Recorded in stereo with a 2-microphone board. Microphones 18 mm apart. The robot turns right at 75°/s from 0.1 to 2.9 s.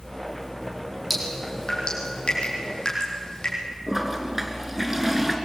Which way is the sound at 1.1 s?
5° left (ahead or behind).